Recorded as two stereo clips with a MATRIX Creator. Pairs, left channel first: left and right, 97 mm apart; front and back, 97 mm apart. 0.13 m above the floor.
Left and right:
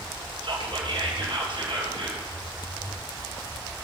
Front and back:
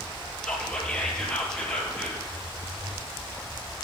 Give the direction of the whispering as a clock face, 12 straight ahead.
3 o'clock.